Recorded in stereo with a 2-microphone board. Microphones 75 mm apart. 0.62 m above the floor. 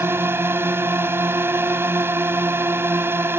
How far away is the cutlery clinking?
No cutlery clinking in this recording.